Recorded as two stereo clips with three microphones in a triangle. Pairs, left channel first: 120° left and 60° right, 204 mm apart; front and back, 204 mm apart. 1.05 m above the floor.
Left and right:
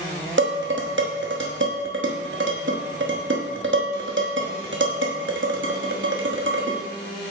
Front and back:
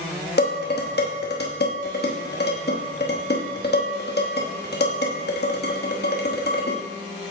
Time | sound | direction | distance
0.4 | dishes clattering | 40° right | 1.0 m